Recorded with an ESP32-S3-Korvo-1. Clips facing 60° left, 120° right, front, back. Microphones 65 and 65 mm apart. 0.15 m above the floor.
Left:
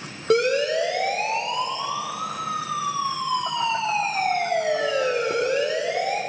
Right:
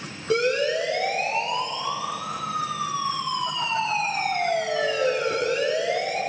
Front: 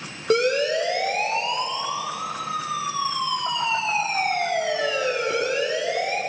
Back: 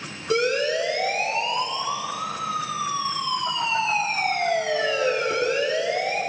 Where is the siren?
35° left, 6 m; by 6.2 s 70° left, 9 m.